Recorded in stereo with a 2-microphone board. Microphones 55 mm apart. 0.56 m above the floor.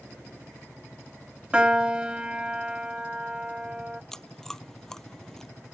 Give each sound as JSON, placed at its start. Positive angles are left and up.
{"t": 1.5, "sound": "a piano", "side_deg": -20}
{"t": 4.1, "sound": "chewing", "side_deg": 10}